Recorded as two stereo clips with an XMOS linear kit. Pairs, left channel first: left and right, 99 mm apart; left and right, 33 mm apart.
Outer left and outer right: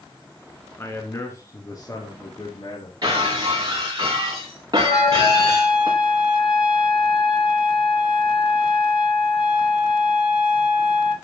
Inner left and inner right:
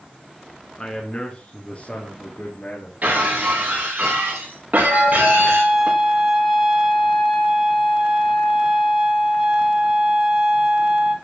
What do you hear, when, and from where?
0.8 s a man speaking: 25° left (ahead or behind), 1.8 m; by 2.9 s 45° left (ahead or behind), 3 m
3.0 s breaking glass: 40° right (ahead or behind), 5.5 m
4.9 s a trumpet: 10° right (ahead or behind), 1.7 m